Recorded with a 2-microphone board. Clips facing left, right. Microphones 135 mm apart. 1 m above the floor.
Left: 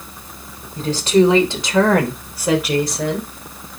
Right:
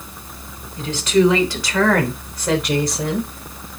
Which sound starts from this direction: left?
A woman speaking, at 0.8 s.